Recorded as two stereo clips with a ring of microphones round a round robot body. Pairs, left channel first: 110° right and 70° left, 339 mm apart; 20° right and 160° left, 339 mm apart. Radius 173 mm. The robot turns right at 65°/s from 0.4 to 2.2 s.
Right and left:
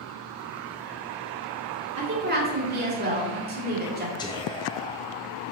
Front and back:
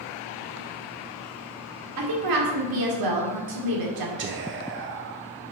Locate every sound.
2.0 s a woman speaking: 115° left, 2 m; by 4.1 s 130° left, 2 m
4.2 s whispering: straight behind, 0.7 m